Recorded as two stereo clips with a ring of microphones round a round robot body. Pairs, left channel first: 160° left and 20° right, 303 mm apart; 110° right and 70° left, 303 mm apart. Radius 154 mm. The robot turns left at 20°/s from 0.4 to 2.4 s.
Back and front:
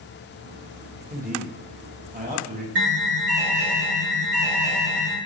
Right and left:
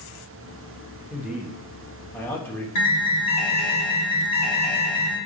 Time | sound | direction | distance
1.1 | a man speaking | 10° right | 0.9 m
2.8 | an alarm | 80° right | 2 m